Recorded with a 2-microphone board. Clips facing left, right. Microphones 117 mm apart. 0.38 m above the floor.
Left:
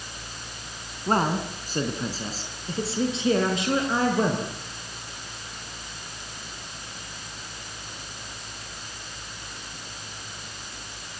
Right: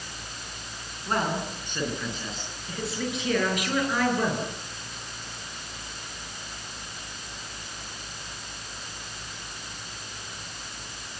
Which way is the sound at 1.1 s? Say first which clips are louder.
Left 4 dB; 40° left (ahead or behind).